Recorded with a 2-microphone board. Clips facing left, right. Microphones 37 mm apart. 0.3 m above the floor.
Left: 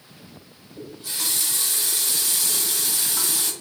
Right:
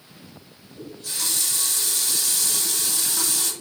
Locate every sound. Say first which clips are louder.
0.8 s a running tap: even; 10° left (ahead or behind), 1.2 m